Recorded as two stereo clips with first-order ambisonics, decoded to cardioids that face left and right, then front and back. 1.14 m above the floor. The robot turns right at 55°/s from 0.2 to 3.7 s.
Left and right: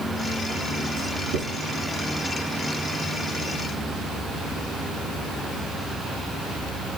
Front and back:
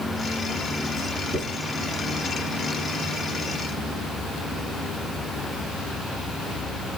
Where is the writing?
110° right, 2 m; by 1.6 s 75° right, 2 m.